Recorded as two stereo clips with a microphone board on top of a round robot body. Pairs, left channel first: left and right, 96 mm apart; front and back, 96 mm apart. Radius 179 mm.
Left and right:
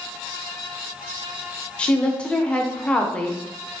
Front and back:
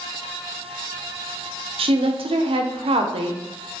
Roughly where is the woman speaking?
Behind.